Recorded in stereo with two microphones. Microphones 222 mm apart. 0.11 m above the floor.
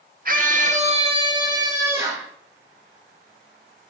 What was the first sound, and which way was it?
A scream, 45° right (ahead or behind).